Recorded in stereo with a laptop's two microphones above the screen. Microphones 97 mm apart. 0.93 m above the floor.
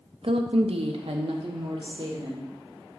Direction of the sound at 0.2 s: 60° right (ahead or behind).